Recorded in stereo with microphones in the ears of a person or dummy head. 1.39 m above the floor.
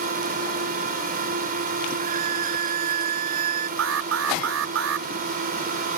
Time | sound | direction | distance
0.0 | a drone | 50° right (ahead or behind) | ?
2.0 | a violin | 50° right (ahead or behind) | ?
3.8 | an alarm | 80° right | ?